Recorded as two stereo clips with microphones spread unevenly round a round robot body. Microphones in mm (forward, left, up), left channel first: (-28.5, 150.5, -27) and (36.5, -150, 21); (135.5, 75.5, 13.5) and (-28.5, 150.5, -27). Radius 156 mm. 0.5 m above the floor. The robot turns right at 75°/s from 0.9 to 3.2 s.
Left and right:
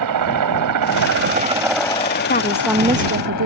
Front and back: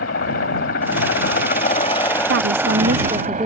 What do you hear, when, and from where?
0.0 s a helicopter: 50° right; by 3.5 s 120° left
2.3 s a woman speaking: 165° left; by 3.5 s 130° right